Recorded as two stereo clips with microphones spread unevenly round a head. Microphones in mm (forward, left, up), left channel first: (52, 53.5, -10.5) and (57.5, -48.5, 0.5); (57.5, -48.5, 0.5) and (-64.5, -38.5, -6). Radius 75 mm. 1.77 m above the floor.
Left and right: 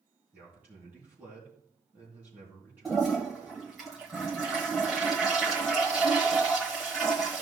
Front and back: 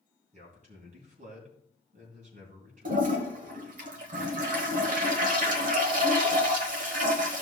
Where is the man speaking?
165° right, 3 m.